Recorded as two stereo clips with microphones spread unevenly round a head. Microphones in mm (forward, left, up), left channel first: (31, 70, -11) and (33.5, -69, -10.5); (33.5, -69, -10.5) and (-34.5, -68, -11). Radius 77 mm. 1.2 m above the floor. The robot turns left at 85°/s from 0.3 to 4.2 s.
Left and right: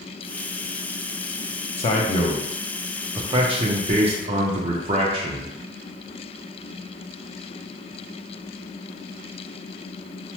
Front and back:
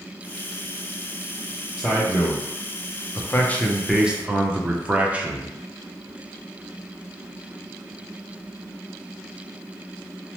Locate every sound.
1.8 s a man speaking: 90° left, 0.5 m; by 5.5 s 120° right, 0.5 m